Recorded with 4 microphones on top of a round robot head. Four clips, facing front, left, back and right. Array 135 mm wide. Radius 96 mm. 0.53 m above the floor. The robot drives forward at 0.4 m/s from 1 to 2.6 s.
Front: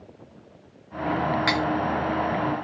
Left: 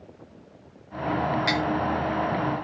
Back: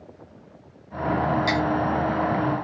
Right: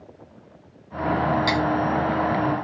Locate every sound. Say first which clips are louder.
1.5 s cutlery clinking: right 3 dB, back 1 dB; 30° right, 1.2 m